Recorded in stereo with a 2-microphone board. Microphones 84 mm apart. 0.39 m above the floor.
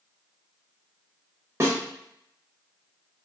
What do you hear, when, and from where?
1.6 s a snare drum: 35° right (ahead or behind), 1.0 m